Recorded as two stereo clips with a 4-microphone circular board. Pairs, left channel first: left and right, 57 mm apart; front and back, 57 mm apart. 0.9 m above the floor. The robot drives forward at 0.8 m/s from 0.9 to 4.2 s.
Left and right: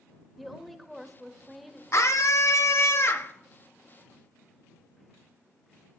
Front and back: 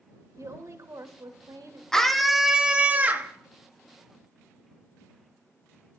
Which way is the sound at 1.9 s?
75° left.